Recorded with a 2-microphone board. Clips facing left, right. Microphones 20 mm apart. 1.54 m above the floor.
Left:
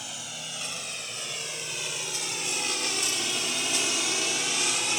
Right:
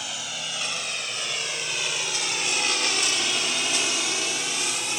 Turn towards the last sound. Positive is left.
turn(degrees=10)  # may be behind; listen again after turning